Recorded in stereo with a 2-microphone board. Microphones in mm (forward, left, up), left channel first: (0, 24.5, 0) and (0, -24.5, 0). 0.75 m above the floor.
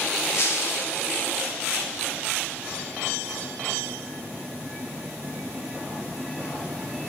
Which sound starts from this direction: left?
Breaking glass, at 0.3 s.